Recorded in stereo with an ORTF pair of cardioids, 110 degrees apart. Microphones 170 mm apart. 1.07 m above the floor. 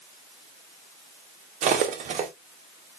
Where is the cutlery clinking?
50° right, 0.9 m.